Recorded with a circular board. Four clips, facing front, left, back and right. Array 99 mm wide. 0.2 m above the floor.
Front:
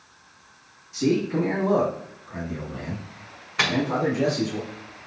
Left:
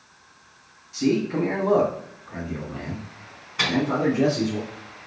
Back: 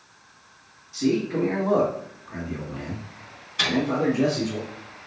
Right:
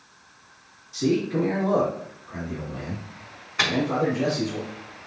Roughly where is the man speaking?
Left.